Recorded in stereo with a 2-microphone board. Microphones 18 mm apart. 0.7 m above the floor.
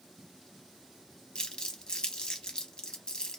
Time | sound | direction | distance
1.4 | crumpling | 50° left (ahead or behind) | 0.8 m